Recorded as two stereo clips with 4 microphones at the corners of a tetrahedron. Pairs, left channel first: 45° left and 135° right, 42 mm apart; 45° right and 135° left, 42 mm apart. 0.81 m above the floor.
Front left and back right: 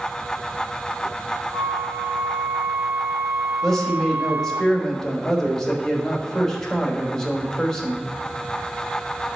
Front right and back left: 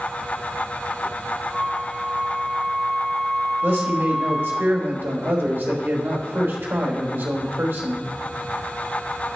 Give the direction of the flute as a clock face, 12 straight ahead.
4 o'clock.